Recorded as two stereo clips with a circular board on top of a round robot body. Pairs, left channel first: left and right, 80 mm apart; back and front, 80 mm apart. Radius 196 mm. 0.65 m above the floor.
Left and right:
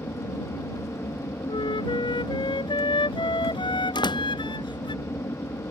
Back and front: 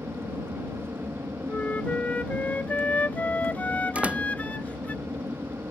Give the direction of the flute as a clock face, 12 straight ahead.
8 o'clock.